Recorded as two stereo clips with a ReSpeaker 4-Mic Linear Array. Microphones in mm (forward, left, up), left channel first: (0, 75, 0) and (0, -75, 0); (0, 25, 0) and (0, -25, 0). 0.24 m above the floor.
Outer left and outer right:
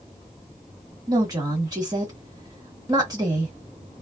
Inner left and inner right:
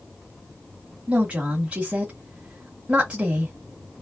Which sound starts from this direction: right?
A woman speaking, at 1.1 s.